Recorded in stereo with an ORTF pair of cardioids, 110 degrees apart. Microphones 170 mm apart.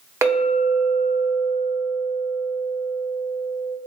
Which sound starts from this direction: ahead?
A clink, at 0.2 s.